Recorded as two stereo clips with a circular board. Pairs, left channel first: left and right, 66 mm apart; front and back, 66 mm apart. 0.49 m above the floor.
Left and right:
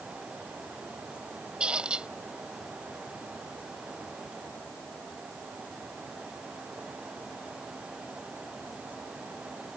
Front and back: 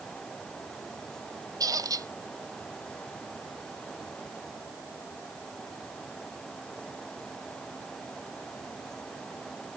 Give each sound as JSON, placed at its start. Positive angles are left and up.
{"t": 1.6, "sound": "a squeak", "azimuth_deg": -165}